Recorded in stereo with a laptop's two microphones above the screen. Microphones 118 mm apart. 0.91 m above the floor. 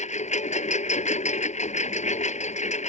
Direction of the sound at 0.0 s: 80° left.